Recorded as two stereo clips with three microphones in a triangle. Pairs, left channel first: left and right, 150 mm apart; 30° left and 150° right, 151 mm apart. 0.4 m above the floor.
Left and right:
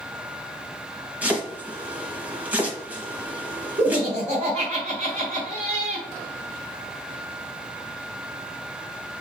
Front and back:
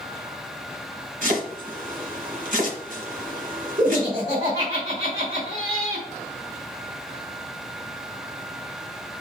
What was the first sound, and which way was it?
Chopping, 170° right.